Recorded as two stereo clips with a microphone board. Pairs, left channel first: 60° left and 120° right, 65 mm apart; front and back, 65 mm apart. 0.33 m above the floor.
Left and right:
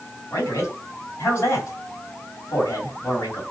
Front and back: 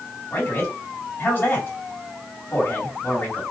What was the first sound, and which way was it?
A man speaking, 45° left.